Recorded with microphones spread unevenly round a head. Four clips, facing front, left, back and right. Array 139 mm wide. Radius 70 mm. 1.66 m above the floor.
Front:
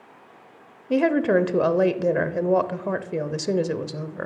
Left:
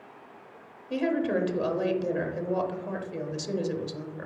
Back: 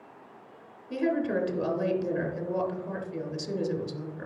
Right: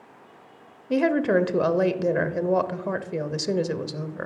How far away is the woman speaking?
About 0.7 m.